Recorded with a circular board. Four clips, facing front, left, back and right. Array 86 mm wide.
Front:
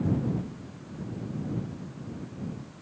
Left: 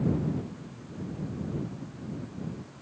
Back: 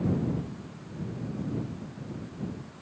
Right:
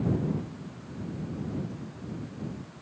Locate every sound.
Only background noise.